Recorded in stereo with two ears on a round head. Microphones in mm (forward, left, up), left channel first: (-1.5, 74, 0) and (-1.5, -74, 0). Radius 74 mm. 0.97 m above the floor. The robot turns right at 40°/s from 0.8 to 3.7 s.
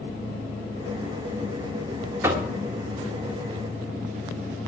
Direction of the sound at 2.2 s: 15° right (ahead or behind).